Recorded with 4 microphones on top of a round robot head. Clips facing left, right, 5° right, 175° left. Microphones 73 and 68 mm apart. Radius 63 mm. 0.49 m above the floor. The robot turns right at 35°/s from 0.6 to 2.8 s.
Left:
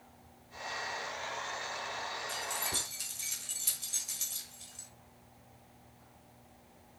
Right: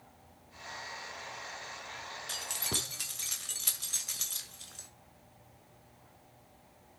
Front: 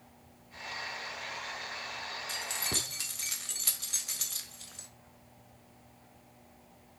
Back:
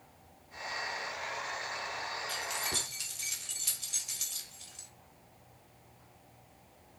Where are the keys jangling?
70° right, 1.4 m; by 4.9 s 55° right, 1.4 m.